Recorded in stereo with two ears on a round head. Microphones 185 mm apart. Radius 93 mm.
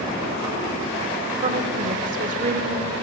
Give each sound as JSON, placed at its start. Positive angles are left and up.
{"t": 1.4, "sound": "a woman speaking", "side_deg": -35, "distance_m": 1.4}